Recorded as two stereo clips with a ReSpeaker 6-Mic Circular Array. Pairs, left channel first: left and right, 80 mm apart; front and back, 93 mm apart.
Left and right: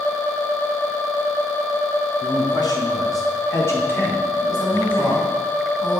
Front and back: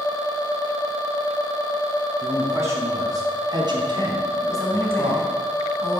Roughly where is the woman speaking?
Ahead left.